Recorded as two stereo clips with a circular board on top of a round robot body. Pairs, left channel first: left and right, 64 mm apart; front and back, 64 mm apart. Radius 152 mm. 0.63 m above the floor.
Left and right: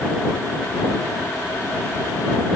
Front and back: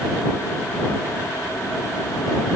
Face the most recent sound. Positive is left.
No sound to turn to.